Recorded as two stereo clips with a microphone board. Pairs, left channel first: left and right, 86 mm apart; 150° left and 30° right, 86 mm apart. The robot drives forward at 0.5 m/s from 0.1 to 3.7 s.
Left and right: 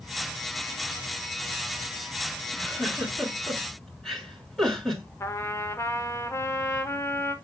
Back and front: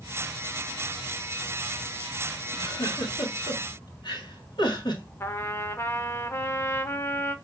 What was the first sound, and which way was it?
A giggle, 170° left.